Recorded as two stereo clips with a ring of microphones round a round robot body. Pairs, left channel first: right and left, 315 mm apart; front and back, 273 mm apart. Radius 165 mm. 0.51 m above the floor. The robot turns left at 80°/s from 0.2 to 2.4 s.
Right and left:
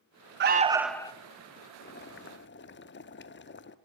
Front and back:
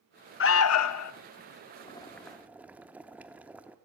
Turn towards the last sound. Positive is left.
turn(degrees=-100)